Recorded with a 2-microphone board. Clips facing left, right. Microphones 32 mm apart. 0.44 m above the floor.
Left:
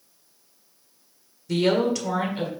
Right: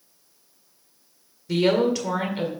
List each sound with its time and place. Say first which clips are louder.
1.5 s a woman speaking: right 1 dB; 10° right (ahead or behind), 1.7 m